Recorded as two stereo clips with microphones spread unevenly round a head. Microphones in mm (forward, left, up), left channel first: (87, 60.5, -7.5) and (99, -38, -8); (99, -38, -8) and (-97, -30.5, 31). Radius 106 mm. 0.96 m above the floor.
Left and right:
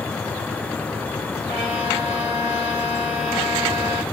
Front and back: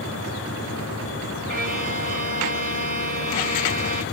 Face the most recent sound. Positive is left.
turn(degrees=-135)